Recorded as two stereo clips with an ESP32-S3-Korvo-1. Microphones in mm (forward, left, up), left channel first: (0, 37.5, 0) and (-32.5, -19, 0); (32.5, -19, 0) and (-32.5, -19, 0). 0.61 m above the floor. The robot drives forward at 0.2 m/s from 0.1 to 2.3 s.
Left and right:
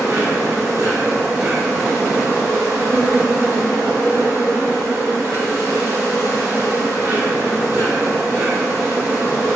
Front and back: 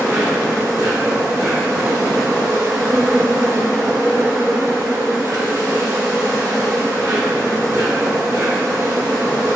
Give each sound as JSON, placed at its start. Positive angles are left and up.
{"t": 0.0, "sound": "an insect", "azimuth_deg": -150, "distance_m": 1.4}